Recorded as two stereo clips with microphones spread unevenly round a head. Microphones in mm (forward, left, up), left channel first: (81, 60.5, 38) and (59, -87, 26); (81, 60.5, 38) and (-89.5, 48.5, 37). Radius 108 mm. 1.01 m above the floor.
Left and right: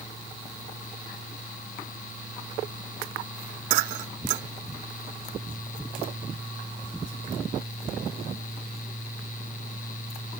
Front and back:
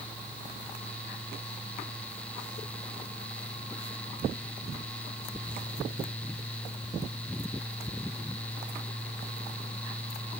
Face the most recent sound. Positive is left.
No sound to turn to.